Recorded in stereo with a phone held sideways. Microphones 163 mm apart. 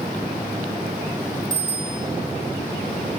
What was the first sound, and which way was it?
A bicycle bell, 45° left (ahead or behind).